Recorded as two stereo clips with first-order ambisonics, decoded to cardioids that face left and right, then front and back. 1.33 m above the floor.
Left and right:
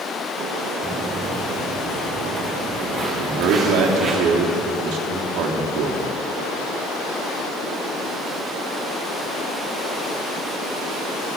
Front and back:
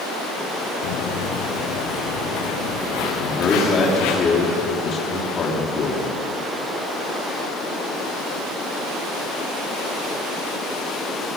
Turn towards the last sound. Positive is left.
turn(degrees=-65)